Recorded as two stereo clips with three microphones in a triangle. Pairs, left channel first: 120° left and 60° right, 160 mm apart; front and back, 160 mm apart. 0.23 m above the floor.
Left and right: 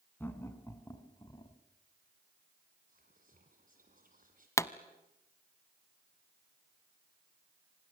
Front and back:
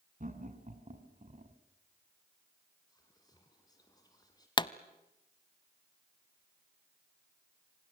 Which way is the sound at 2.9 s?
60° right.